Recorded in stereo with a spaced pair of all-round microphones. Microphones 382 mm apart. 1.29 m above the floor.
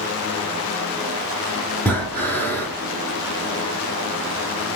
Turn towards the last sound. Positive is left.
turn(degrees=5)  # may be behind; listen again after turning